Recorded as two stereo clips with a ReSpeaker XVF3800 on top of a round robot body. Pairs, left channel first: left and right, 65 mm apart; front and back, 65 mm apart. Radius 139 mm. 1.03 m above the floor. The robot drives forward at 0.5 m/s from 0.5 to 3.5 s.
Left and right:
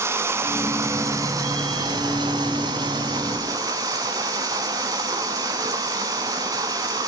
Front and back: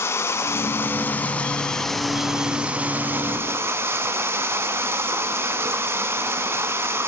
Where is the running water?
45° right, 1.4 m; by 7.1 s 130° right, 1.4 m.